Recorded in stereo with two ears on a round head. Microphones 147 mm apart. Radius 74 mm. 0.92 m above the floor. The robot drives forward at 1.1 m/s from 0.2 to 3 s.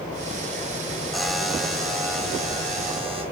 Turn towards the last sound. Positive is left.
turn(degrees=0)  # may be behind; listen again after turning